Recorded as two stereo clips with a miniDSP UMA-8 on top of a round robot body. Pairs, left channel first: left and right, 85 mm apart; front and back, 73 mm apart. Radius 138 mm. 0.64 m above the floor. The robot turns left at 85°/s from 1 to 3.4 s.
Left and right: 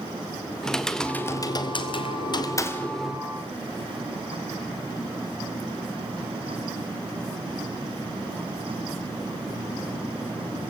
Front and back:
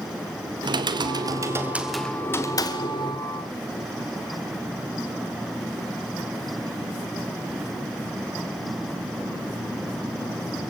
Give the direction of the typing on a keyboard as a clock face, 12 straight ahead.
6 o'clock.